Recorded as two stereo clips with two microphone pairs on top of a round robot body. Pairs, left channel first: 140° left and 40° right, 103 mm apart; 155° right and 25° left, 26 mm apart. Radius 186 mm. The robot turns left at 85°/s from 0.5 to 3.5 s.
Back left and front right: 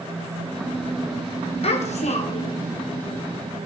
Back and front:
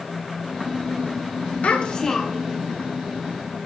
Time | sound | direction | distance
1.6 | a child speaking | 165° left | 1.9 m